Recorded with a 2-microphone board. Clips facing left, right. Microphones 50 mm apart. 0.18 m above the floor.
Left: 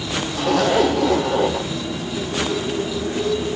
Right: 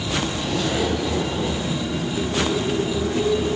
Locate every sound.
0.3 s a zipper: 70° left (ahead or behind), 1.2 m